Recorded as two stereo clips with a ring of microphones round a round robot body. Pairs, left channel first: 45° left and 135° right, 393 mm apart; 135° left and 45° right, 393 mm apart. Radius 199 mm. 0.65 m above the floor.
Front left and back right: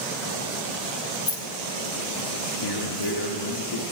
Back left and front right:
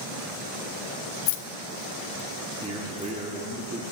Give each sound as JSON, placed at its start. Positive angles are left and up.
{"t": 1.3, "sound": "keys jangling", "azimuth_deg": 125, "distance_m": 0.8}
{"t": 2.6, "sound": "a man speaking", "azimuth_deg": 25, "distance_m": 1.2}